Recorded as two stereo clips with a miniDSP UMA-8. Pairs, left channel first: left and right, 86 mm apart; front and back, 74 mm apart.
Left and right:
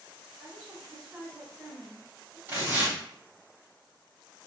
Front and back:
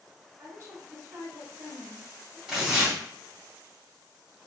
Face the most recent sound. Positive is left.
turn(degrees=-100)